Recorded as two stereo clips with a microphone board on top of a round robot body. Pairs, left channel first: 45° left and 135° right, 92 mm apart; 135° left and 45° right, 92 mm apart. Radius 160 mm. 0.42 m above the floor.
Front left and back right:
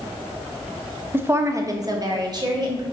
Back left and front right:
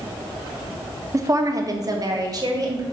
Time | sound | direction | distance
1.1 | a woman speaking | 80° right | 1.0 m